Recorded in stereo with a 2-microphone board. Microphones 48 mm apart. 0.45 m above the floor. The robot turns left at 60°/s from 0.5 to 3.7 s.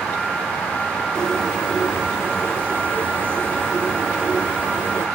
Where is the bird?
25° left, 1.3 m; by 5.1 s 130° right, 1.3 m.